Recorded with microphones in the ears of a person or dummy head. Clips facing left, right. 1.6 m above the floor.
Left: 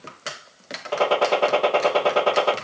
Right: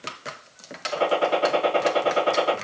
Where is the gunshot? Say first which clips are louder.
Left 2 dB; 75° left (ahead or behind), 1.4 m.